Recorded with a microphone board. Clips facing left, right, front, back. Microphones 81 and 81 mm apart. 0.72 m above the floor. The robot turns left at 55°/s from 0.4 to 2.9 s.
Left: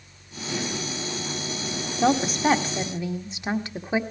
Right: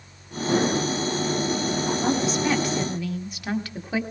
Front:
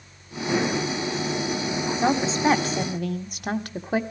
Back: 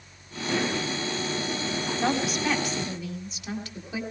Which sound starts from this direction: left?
A woman speaking, at 2.0 s.